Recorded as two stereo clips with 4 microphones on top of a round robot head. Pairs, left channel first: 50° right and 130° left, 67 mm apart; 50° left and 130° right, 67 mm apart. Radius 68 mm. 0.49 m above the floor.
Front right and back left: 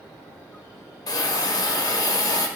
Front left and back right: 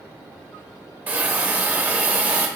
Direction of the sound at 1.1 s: 65° right.